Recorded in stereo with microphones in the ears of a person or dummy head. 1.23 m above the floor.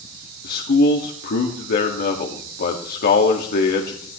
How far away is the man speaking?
About 1.9 m.